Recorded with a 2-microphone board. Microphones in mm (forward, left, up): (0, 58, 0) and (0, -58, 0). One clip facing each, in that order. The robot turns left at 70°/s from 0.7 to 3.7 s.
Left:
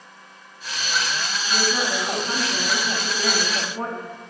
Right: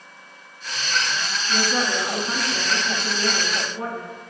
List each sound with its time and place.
1.5 s a woman speaking: 140° right, 1.6 m; by 4.1 s 70° left, 1.6 m